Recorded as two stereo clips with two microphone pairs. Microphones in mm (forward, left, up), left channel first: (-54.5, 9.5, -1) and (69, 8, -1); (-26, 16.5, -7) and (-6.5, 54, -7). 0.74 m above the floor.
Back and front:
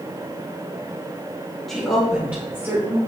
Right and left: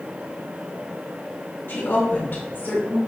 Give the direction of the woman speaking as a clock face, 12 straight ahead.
3 o'clock.